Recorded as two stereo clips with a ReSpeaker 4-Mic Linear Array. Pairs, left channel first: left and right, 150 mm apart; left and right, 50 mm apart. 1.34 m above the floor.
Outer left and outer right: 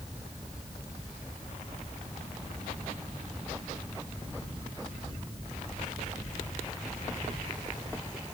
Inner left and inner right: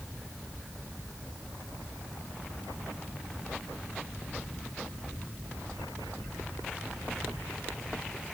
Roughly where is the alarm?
I don't hear an alarm.